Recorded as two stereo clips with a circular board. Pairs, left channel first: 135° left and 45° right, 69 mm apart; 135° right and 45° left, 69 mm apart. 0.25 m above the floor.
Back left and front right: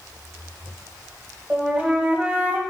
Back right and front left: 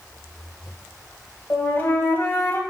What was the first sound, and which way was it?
A flute, 105° right.